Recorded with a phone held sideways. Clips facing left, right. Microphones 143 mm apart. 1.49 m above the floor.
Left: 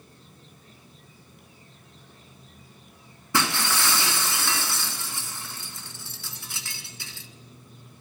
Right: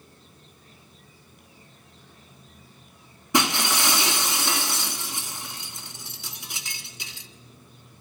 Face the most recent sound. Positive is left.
turn(degrees=-15)  # may be behind; listen again after turning